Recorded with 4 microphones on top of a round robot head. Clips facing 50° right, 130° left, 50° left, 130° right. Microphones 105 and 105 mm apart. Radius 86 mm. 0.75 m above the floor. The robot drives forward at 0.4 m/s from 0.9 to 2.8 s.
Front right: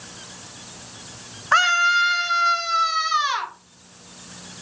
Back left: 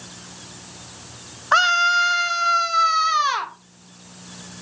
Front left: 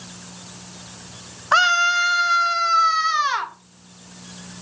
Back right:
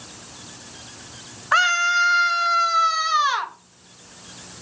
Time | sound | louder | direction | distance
1.5 | a scream | back left 1 dB, front left 2 dB | 80° left | 0.5 m